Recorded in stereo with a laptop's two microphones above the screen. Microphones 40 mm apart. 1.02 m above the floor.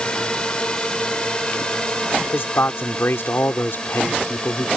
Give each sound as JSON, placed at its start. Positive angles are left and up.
{"t": 0.0, "sound": "a drone", "side_deg": 25}
{"t": 2.3, "sound": "a man speaking", "side_deg": 70}